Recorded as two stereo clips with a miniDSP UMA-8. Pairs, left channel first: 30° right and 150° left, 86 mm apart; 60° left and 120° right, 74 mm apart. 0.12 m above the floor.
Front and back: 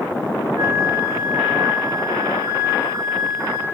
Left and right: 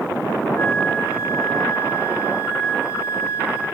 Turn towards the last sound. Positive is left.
turn(degrees=115)